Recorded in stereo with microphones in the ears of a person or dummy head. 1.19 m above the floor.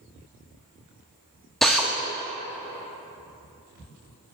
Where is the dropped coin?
I don't hear a dropped coin.